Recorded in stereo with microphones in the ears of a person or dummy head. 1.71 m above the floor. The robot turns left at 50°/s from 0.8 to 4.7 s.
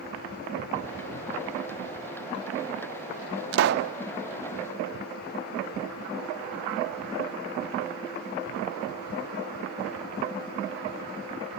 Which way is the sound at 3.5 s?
70° right (ahead or behind).